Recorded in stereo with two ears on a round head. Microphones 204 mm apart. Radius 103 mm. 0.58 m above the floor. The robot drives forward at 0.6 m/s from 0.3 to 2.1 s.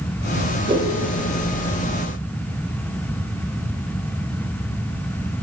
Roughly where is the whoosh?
Right.